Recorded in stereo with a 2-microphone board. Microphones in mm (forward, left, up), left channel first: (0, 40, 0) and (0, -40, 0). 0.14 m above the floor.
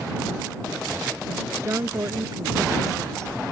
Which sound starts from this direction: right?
A woman speaking, at 1.6 s.